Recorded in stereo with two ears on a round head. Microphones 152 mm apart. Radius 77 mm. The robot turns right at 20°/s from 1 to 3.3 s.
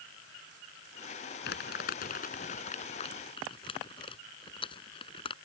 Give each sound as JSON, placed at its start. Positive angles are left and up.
{"t": 1.4, "sound": "crumpling", "side_deg": 70}